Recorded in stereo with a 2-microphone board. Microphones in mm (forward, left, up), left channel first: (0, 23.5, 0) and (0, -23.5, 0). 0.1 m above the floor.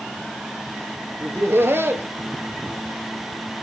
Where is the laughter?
50° right (ahead or behind), 1.8 m.